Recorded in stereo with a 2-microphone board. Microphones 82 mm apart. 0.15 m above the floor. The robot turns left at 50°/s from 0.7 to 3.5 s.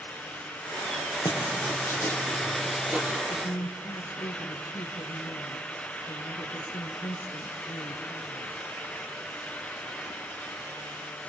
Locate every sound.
1.2 s writing: 65° left, 4 m; by 3.2 s 30° right, 4 m
3.3 s a woman speaking: 55° left (ahead or behind), 3 m; by 8.6 s 50° left (ahead or behind), 3 m